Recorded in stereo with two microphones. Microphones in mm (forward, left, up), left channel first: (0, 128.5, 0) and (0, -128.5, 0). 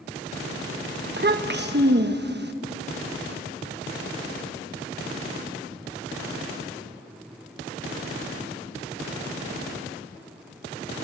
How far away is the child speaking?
About 1.2 m.